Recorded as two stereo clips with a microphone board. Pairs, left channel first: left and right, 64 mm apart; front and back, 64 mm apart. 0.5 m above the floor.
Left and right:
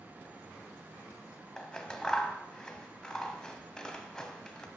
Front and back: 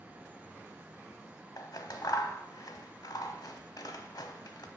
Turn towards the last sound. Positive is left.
turn(degrees=10)